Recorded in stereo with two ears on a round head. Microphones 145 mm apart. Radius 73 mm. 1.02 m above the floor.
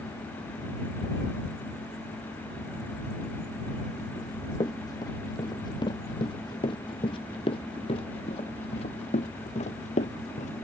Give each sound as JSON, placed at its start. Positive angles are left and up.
{"t": 4.2, "sound": "running footsteps", "side_deg": 25}